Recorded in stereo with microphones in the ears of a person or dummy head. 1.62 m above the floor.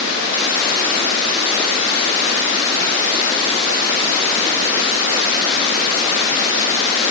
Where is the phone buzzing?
No phone buzzing in this recording.